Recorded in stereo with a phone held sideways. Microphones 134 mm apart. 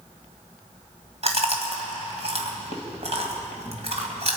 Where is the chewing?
50° right (ahead or behind), 2.0 m.